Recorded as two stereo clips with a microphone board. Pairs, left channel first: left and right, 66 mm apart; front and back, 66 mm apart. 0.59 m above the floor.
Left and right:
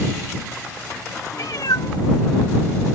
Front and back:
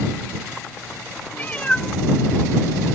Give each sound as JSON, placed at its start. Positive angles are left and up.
{"t": 1.3, "sound": "a cat meowing", "azimuth_deg": 55}